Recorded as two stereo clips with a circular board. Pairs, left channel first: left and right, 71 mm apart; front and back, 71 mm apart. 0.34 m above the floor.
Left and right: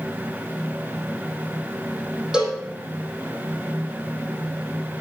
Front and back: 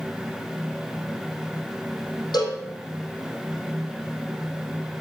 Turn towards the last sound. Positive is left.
turn(degrees=-10)